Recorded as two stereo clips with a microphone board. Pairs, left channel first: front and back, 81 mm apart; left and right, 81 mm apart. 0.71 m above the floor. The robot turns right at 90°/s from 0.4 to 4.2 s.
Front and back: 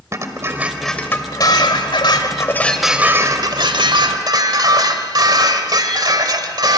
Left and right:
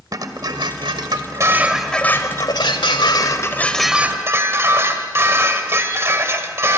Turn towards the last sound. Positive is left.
turn(degrees=-145)